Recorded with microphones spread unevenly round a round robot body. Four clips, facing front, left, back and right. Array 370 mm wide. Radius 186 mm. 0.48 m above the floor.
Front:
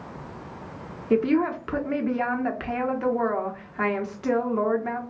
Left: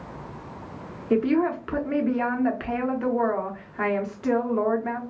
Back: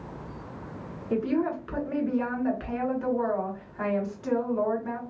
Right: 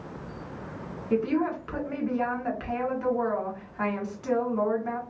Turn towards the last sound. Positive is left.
turn(degrees=40)